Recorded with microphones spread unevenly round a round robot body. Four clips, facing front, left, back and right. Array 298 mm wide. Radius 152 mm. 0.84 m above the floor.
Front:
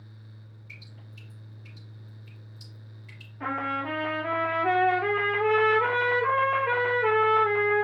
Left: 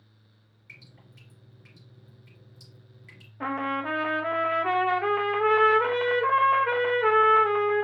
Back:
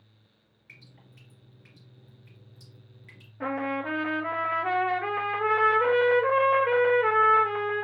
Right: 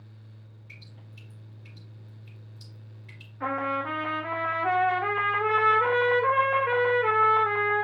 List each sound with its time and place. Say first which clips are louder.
0.7 s dripping: even, front 2 dB; 130° left, 3 m
3.4 s a trumpet: even, back 1 dB; 135° left, 1.1 m